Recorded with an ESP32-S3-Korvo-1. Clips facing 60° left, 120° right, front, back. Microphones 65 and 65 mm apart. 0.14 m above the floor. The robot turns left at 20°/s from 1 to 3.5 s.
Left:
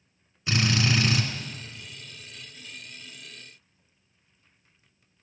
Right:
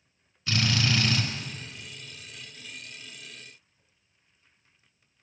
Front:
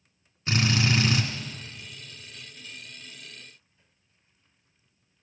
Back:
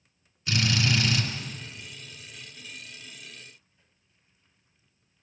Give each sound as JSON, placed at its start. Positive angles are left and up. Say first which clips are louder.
{"t": 0.5, "sound": "a drill", "louder": "left 2 dB, front 1 dB", "azimuth_deg": -5, "distance_m": 2.0}